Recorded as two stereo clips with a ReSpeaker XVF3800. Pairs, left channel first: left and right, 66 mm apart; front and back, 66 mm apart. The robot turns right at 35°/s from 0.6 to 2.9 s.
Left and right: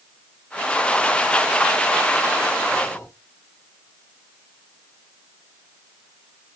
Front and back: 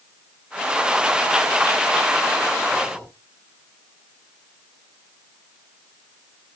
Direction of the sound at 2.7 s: 55° left.